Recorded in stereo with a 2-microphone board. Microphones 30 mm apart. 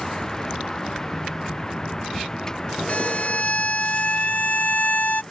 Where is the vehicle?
15° left (ahead or behind).